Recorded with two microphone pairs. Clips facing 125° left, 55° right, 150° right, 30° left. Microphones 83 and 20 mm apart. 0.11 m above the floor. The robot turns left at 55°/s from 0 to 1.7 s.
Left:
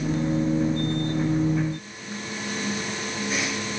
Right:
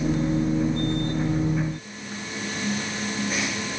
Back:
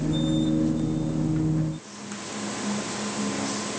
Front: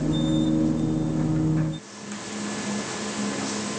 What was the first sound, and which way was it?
Only background noise.